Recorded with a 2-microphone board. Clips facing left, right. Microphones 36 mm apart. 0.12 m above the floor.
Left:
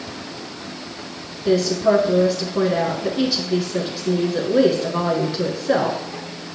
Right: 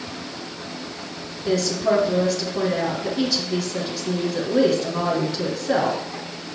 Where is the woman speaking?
15° left (ahead or behind), 1.2 m.